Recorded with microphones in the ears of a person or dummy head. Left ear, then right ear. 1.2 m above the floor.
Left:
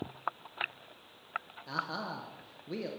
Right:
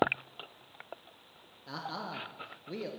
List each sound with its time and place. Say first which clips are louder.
1.7 s a man speaking: left 2 dB; centre (ahead or behind), 0.6 m